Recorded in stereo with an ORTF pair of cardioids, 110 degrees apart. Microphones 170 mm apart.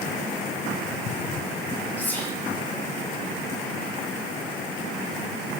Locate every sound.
2.0 s whispering: 10° left, 1.1 m